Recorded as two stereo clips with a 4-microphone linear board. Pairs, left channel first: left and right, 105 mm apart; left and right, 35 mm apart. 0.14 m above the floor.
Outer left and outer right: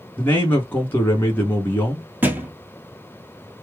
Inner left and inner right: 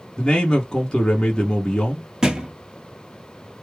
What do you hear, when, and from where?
0.2 s a man speaking: 20° left (ahead or behind), 1.1 m
2.2 s a thud: 20° right (ahead or behind), 1.0 m